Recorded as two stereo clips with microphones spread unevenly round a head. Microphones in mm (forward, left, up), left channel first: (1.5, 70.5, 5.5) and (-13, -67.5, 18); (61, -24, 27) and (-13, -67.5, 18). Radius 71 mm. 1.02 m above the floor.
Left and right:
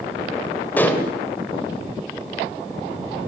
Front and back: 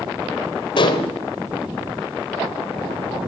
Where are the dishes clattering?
5° left, 2.5 m.